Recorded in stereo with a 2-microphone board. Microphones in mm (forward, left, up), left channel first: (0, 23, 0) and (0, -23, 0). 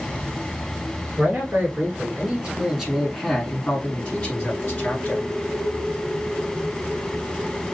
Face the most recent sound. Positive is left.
turn(degrees=40)  # may be behind; listen again after turning